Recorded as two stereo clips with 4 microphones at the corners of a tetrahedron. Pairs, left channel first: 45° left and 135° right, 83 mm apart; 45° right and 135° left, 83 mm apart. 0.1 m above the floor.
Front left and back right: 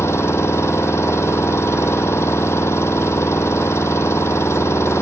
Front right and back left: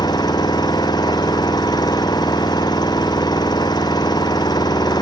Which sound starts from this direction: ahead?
An engine running, at 0.0 s.